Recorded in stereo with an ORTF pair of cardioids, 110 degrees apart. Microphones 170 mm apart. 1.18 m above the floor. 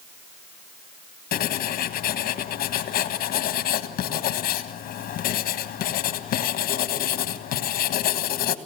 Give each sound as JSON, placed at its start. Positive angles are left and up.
{"t": 1.3, "sound": "writing", "azimuth_deg": 65, "distance_m": 1.7}